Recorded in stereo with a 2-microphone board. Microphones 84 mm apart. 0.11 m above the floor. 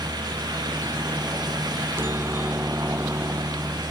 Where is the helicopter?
30° right (ahead or behind).